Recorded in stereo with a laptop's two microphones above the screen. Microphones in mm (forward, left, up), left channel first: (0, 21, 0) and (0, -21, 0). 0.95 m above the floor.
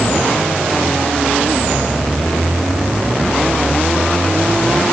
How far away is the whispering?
No whispering in this recording.